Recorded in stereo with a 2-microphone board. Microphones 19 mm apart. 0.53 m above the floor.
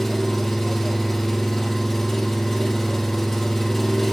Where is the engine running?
5° left (ahead or behind), 5.5 m.